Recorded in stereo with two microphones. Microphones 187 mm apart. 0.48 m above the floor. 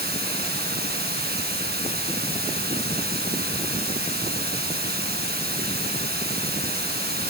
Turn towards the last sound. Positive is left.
turn(degrees=-55)  # may be behind; listen again after turning